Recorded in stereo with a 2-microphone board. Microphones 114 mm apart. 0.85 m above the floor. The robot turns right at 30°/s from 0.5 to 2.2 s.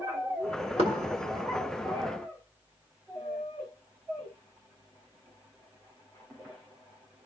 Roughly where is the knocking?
Right.